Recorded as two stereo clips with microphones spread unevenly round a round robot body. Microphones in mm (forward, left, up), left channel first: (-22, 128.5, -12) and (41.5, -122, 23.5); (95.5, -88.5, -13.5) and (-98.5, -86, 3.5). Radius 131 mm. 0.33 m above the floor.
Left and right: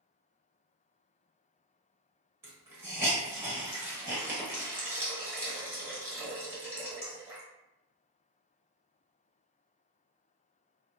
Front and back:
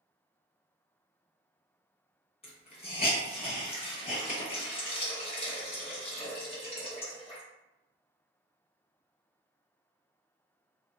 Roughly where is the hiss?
Ahead.